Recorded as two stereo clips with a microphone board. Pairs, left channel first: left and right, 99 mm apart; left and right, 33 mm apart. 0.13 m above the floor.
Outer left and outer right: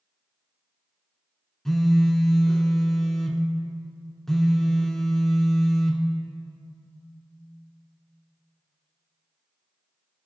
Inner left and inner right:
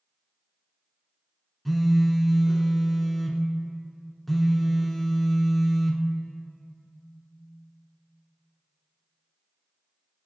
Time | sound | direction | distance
1.6 | a phone buzzing | 5° left (ahead or behind) | 0.6 m